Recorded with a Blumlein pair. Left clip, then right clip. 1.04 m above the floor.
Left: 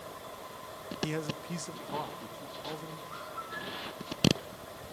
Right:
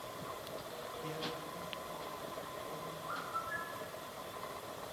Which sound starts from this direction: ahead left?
A man speaking, at 1.0 s.